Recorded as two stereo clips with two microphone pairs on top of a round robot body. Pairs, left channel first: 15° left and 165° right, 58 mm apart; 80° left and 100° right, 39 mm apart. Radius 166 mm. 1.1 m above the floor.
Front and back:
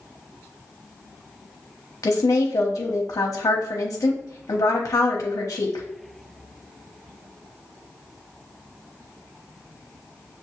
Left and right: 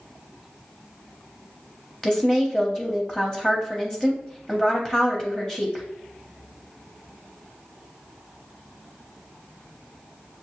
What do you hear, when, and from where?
2.0 s a woman speaking: 10° right, 0.8 m